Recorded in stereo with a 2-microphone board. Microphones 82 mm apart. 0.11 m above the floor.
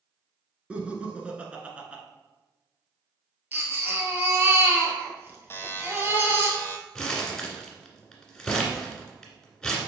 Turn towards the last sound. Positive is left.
turn(degrees=5)  # may be behind; listen again after turning